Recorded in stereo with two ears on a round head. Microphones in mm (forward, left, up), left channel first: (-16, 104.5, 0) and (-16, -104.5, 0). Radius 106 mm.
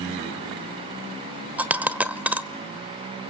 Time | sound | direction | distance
1.6 | a dropped coin | 5° right (ahead or behind) | 1.2 m